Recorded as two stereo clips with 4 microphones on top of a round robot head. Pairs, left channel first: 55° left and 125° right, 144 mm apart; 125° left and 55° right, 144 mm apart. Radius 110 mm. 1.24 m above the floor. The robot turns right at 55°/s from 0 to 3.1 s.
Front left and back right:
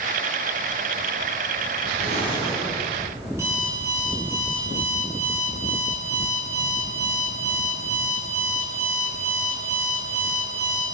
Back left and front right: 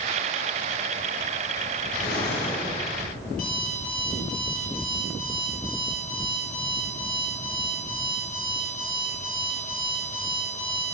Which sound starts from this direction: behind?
An alarm clock, at 3.3 s.